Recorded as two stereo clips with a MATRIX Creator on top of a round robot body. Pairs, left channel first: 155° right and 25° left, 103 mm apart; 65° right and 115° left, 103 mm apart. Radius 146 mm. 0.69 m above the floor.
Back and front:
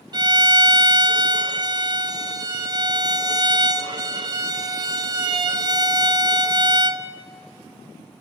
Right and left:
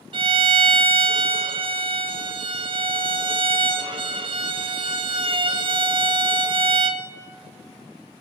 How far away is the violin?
About 0.8 m.